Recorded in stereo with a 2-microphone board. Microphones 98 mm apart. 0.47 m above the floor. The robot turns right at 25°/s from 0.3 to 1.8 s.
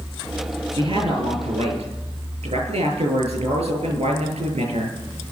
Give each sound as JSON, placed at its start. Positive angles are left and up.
{"t": 0.7, "sound": "a man speaking", "side_deg": -50, "distance_m": 9.5}